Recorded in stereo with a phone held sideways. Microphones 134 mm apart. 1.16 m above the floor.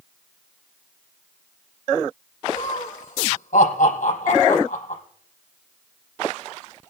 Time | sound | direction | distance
2.5 | laughter | 80° left | 4.5 m